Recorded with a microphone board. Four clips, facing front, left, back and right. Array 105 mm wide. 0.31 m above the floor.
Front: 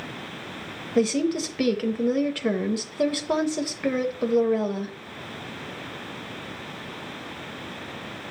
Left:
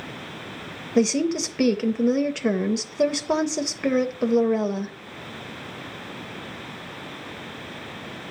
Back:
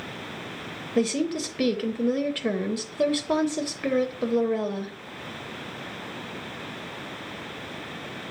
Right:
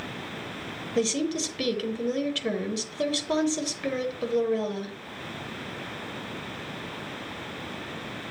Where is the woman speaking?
80° left, 0.9 m.